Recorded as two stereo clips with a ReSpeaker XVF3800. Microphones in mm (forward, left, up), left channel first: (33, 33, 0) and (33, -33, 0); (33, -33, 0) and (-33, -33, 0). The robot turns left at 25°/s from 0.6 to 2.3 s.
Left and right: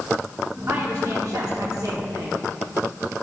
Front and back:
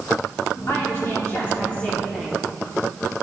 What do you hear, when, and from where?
0.7 s a woman speaking: 45° right, 1.7 m; by 2.5 s 85° right, 1.7 m